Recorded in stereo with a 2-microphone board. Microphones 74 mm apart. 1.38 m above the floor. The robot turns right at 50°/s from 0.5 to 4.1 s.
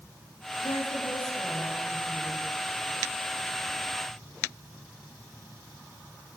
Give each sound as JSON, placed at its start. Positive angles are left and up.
{"t": 0.6, "sound": "a woman speaking", "azimuth_deg": 90, "distance_m": 8.0}